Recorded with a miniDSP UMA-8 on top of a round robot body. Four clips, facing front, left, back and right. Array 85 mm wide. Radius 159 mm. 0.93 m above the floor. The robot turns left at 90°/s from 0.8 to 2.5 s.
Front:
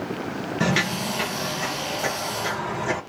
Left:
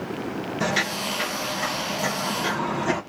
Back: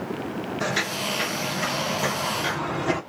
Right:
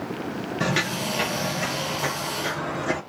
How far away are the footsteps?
About 1.7 m.